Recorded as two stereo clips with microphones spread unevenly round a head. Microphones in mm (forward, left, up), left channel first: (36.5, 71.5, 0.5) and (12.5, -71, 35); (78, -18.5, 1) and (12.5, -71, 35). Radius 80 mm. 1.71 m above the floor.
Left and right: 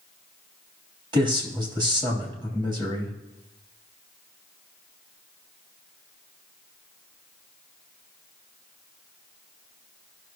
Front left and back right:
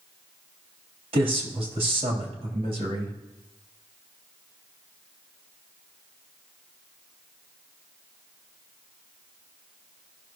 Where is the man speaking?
160° right, 3 m.